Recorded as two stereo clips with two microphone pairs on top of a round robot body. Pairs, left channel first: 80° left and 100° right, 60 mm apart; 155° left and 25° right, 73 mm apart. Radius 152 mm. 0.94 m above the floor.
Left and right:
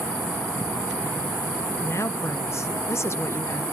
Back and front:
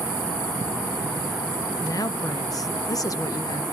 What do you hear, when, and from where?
1.8 s a woman speaking: 120° left, 1.1 m